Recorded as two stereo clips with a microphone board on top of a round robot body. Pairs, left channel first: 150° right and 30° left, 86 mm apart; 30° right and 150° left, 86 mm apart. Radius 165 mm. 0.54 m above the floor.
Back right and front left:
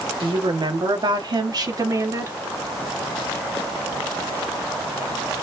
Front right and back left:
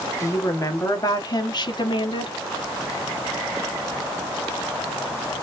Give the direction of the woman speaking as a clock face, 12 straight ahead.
11 o'clock.